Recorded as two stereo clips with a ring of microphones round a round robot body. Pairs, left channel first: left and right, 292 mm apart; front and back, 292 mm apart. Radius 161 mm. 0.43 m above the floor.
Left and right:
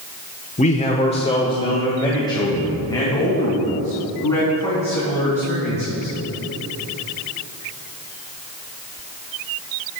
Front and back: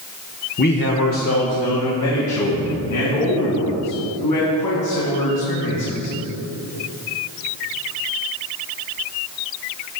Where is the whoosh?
No whoosh in this recording.